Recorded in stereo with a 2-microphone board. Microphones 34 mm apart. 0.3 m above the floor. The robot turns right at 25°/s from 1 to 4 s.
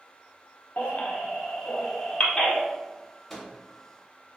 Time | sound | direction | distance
0.8 | a baby crying | 60° left (ahead or behind) | 0.5 m
3.3 | a microwave | 5° left (ahead or behind) | 0.7 m